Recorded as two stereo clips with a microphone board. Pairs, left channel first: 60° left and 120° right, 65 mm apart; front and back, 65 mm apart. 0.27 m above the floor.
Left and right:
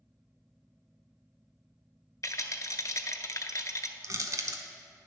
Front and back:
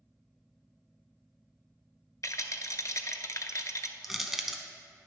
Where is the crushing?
95° right, 0.6 m.